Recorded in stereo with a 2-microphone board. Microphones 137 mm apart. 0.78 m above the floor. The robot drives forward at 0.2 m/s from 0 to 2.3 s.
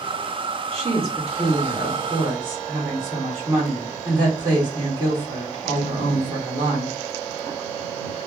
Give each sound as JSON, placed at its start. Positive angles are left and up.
{"t": 0.7, "sound": "a woman speaking", "side_deg": -45, "distance_m": 1.6}